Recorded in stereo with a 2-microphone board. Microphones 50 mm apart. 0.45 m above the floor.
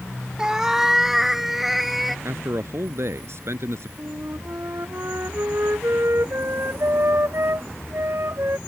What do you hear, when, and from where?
0.4 s a cat meowing: 15° right (ahead or behind); by 2.1 s 5° right (ahead or behind)
2.2 s a man speaking: 65° right (ahead or behind)
4.0 s a flute: 60° right (ahead or behind)